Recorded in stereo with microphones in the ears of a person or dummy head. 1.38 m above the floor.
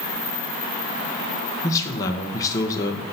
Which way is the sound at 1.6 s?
15° left (ahead or behind).